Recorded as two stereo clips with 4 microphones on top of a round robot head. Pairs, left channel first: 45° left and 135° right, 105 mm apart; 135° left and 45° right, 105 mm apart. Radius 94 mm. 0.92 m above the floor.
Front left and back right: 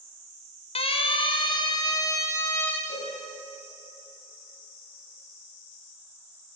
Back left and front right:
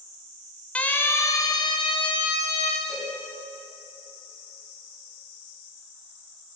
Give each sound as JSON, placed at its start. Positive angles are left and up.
{"t": 0.8, "sound": "a siren", "azimuth_deg": 55, "distance_m": 2.0}
{"t": 2.9, "sound": "a cowbell", "azimuth_deg": 45, "distance_m": 8.0}